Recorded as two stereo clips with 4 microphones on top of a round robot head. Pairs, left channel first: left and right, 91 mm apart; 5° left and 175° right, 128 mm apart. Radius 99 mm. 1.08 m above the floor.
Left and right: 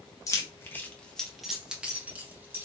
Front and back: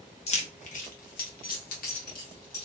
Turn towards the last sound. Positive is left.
turn(degrees=-25)